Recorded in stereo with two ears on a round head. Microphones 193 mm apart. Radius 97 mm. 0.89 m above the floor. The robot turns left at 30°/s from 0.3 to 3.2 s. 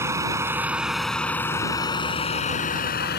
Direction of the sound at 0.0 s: 15° right (ahead or behind).